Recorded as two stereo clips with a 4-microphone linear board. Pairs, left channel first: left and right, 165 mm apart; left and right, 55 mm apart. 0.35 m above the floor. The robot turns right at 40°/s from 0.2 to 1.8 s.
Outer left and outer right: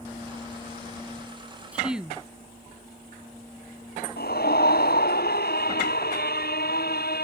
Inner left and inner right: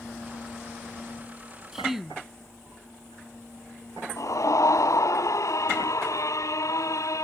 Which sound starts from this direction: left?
A scream, at 4.2 s.